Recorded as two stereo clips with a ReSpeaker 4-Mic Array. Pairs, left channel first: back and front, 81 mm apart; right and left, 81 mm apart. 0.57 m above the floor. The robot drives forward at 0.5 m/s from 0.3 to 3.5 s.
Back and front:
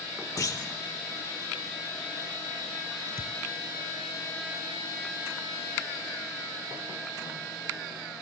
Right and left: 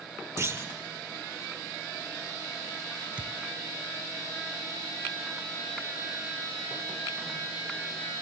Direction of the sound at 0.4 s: 140° left.